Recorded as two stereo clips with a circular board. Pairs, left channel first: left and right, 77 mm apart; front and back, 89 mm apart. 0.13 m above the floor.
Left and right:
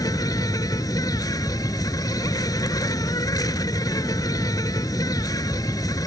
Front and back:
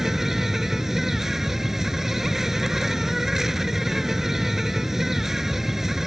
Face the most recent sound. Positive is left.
turn(degrees=95)